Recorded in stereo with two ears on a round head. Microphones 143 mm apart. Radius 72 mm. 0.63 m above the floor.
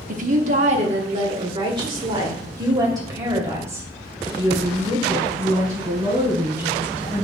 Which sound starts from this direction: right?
A woman speaking, at 0.1 s.